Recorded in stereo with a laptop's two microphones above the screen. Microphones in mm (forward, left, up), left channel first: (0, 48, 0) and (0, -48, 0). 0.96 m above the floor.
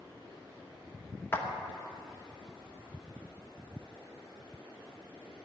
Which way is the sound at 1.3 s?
20° left (ahead or behind).